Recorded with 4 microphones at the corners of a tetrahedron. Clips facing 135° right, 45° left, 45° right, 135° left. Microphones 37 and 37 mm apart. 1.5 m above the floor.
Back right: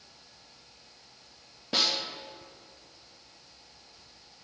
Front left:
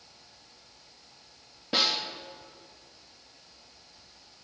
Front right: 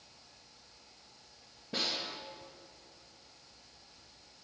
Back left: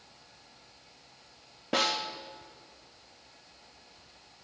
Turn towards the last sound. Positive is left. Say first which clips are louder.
# front left 1 dB, back left 7 dB
turn(degrees=130)